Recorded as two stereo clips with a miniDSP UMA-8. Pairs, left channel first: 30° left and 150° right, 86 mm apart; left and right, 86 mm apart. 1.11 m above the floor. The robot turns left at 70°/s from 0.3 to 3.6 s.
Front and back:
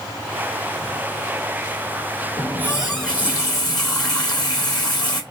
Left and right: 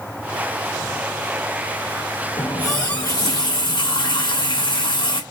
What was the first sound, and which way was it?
A running tap, 160° left.